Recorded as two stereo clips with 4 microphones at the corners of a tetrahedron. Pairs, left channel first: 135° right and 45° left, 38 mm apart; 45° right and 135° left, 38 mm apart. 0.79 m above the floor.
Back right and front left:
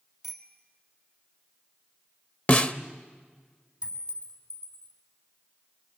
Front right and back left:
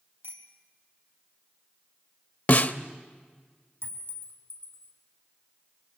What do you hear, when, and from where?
0.2 s a bicycle bell: 135° left, 3 m
2.5 s a snare drum: 90° right, 0.8 m
3.8 s a clink: 110° left, 3.5 m